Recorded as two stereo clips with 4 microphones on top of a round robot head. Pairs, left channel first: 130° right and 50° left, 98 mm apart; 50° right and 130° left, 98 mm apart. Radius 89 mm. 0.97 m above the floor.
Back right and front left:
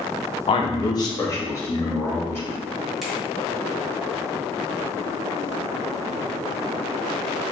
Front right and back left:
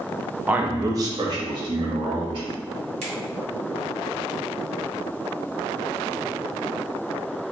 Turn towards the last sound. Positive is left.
turn(degrees=140)